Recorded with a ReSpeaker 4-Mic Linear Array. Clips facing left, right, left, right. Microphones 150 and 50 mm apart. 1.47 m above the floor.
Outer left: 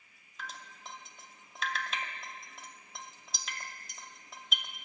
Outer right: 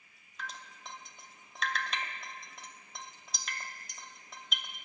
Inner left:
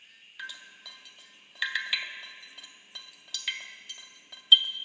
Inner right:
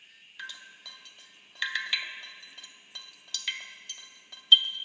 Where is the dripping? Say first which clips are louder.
Outer right 1 dB, inner left 1 dB; centre (ahead or behind), 0.5 m.